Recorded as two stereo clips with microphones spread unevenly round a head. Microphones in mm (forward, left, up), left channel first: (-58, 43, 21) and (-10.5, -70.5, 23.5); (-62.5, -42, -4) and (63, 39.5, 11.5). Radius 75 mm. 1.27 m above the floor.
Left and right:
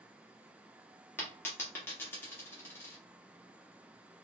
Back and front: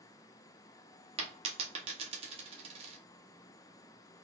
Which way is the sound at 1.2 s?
40° left.